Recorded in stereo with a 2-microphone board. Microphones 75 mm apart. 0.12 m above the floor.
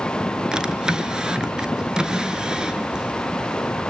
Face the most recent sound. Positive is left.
turn(degrees=-10)  # may be behind; listen again after turning